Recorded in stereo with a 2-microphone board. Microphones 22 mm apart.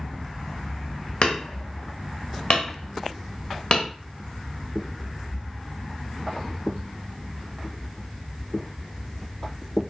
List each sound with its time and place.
1.2 s hammering: 65° left (ahead or behind), 1.4 m